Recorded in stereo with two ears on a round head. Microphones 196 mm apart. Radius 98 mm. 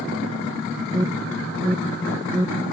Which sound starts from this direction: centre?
An alarm, at 0.9 s.